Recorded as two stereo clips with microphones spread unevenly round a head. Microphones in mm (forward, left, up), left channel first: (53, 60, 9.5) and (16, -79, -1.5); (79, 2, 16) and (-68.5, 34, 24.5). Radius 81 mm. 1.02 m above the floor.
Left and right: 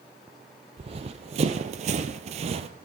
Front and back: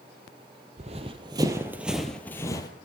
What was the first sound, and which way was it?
Running footsteps, 155° right.